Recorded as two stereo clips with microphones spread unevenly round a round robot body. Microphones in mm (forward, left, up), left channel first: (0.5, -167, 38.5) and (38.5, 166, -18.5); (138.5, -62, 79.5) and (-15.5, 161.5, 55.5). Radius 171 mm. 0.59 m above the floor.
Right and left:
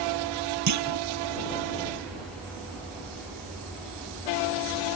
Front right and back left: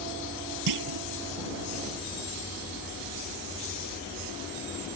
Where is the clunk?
130° left.